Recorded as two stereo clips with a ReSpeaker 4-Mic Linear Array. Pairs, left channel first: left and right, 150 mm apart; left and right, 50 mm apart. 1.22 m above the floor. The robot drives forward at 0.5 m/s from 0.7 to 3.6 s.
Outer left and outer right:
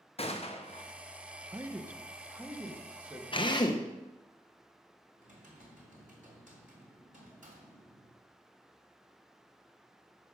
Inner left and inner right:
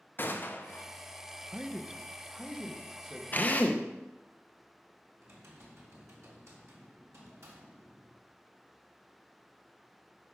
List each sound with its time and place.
0.2 s a gunshot: 40° left (ahead or behind), 0.9 m
1.5 s a man speaking: 15° right (ahead or behind), 0.7 m; by 3.2 s 10° right (ahead or behind), 1.5 m
3.3 s a drill: 35° left (ahead or behind), 0.7 m; by 3.9 s 30° left (ahead or behind), 0.8 m
5.2 s typing on a keyboard: 65° right (ahead or behind), 3 m